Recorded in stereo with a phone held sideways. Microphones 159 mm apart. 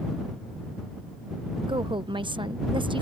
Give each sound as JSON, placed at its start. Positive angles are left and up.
{"t": 1.6, "sound": "a woman speaking", "side_deg": -30}